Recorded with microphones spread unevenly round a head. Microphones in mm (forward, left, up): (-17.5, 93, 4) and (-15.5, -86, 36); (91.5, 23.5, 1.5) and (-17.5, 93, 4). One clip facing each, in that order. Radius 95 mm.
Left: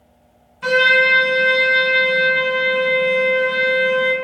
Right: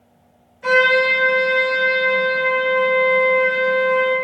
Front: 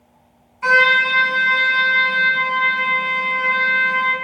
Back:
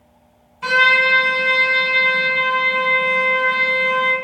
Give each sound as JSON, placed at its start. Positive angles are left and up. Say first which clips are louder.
{"t": 0.6, "sound": "a trumpet", "louder": "right 1 dB, front 1 dB", "azimuth_deg": 80, "distance_m": 1.3}